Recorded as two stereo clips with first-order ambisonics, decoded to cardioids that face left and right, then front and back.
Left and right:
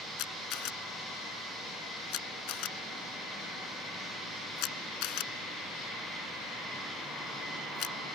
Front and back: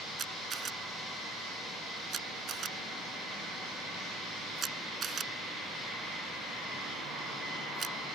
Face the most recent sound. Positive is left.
turn(degrees=115)